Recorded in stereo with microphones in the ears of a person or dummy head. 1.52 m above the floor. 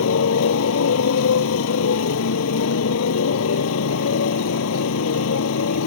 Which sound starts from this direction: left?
A motorcycle, at 0.0 s.